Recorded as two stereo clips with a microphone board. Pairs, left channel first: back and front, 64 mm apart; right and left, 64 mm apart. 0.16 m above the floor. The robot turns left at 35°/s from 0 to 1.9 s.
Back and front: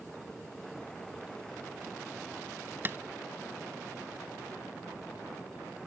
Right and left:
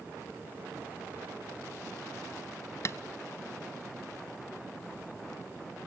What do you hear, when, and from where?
2.9 s tapping: 50° right, 0.6 m